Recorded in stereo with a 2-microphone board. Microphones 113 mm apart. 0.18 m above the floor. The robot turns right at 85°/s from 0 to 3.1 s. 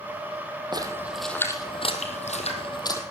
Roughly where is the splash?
Right.